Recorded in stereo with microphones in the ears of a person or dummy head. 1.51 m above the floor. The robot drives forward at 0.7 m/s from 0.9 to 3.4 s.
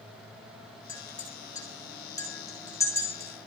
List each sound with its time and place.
0.9 s a clink: 25° left (ahead or behind), 3.5 m; by 3.5 s 15° left (ahead or behind), 5.5 m